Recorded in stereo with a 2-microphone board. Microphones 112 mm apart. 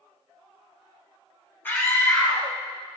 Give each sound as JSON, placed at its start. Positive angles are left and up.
{"t": 1.6, "sound": "a scream", "side_deg": 20, "distance_m": 1.3}